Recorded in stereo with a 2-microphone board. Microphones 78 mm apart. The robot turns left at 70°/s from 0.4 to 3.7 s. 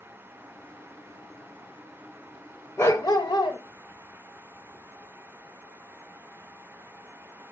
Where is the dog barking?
150° left, 0.6 m; by 3.6 s 90° left, 0.6 m.